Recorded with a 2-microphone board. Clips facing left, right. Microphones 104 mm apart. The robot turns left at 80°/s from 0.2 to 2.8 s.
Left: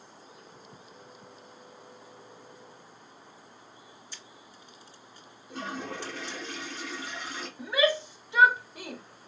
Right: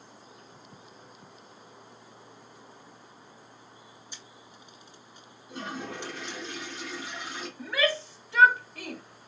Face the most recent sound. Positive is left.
turn(degrees=20)  # may be behind; listen again after turning